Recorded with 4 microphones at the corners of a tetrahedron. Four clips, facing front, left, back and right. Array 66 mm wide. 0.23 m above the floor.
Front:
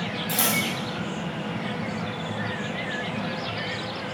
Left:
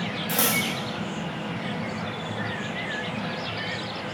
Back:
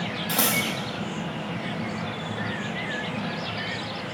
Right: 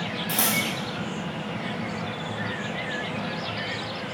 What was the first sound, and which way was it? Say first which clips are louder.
Scissors: left 1 dB, back 1 dB; 165° left.